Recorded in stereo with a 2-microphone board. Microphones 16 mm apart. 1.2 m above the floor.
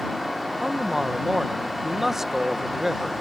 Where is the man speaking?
25° right (ahead or behind).